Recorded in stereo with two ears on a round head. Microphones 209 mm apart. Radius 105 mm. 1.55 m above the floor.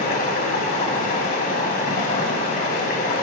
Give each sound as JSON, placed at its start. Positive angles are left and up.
{"t": 0.0, "sound": "running water", "side_deg": 35, "distance_m": 3.5}